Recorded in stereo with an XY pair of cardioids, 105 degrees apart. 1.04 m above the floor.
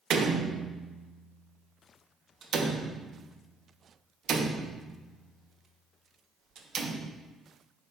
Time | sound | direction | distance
0.1 | a door slam | 60° right | 0.6 m